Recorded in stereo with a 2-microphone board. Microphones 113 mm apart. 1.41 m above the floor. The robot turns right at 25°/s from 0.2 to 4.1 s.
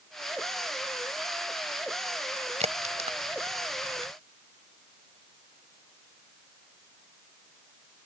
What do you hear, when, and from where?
2.6 s a crack: 85° right; by 4.1 s 55° right (ahead or behind)